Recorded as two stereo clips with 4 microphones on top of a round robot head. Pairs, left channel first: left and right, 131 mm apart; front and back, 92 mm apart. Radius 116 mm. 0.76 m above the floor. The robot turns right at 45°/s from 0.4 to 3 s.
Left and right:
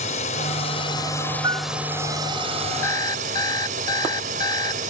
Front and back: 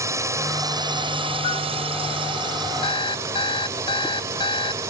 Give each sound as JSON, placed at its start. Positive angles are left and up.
{"t": 0.0, "sound": "a drone", "azimuth_deg": 125}
{"t": 1.4, "sound": "a piano", "azimuth_deg": -30}
{"t": 2.8, "sound": "an alarm clock", "azimuth_deg": 20}